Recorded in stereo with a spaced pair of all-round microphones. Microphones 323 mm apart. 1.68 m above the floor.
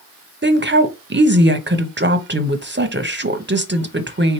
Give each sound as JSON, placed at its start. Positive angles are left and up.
{"t": 0.4, "sound": "a woman speaking", "side_deg": -35, "distance_m": 0.8}